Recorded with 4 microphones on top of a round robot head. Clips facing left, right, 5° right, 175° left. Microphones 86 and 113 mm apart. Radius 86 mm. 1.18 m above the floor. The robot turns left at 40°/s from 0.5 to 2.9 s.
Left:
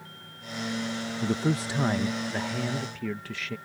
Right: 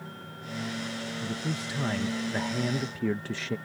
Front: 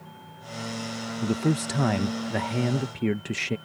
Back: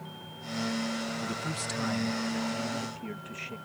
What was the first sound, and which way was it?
A man speaking, 45° left.